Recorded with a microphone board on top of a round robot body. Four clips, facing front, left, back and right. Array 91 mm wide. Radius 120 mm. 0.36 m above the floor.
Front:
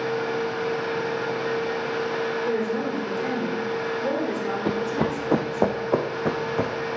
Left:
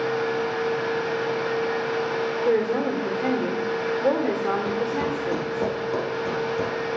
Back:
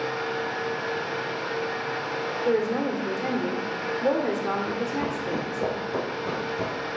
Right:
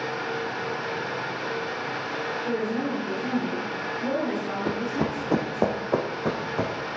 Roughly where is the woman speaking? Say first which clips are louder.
Left 6 dB, back 1 dB; left.